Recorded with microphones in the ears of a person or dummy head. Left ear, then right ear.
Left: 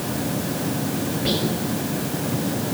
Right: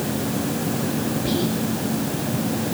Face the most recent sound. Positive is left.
turn(degrees=50)  # may be behind; listen again after turning